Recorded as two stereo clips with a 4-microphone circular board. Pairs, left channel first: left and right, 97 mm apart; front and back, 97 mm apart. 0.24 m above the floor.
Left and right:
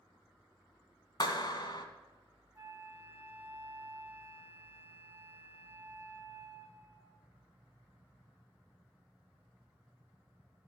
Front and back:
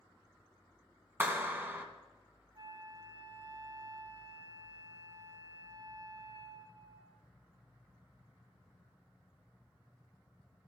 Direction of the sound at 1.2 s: 115° left.